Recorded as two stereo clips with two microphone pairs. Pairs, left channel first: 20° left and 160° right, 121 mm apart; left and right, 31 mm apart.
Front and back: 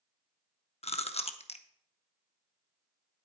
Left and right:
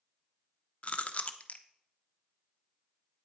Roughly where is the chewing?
Ahead left.